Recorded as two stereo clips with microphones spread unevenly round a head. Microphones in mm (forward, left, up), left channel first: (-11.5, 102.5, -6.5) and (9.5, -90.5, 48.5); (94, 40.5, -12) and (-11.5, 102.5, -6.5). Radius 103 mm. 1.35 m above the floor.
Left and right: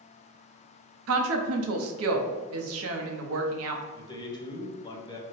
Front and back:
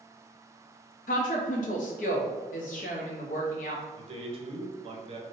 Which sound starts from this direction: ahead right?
A woman speaking, at 1.1 s.